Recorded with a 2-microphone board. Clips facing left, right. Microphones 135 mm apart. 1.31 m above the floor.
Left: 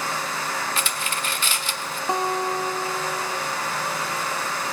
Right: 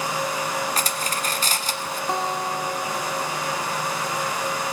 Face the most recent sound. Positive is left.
turn(degrees=15)  # may be behind; listen again after turning